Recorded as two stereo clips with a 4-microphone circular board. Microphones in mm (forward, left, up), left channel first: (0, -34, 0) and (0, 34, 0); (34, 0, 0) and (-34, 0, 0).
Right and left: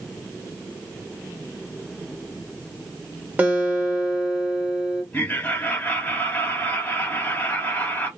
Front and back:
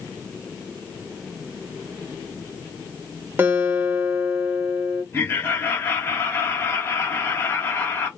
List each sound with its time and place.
3.4 s a guitar: 140° left, 1.0 m
5.1 s laughter: 40° right, 1.4 m